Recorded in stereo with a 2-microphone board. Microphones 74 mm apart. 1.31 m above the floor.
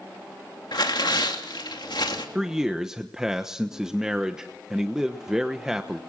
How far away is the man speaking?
About 1.0 m.